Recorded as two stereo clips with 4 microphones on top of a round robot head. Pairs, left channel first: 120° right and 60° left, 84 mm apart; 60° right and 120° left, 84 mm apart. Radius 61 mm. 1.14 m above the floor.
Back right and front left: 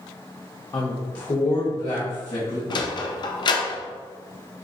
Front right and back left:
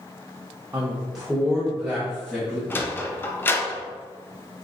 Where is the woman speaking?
170° right, 0.7 m; by 2.6 s 145° right, 2.5 m.